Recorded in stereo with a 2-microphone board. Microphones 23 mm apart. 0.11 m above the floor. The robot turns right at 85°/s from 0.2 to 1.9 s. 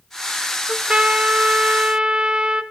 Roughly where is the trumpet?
Behind right.